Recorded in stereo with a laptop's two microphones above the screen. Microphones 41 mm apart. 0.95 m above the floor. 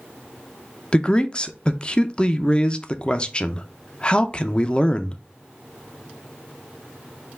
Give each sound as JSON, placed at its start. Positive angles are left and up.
{"t": 0.9, "sound": "a man speaking", "side_deg": 25, "distance_m": 0.5}